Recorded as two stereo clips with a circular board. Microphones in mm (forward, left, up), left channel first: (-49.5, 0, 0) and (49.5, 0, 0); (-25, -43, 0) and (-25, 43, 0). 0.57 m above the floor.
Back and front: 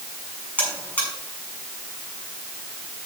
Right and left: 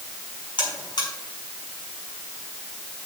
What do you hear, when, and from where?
0.6 s a buzzer: 110° right, 6.5 m